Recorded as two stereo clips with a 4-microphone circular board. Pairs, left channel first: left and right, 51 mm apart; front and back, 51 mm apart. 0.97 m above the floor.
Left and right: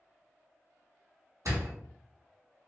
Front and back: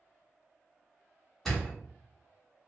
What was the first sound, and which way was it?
A door slam, 80° right.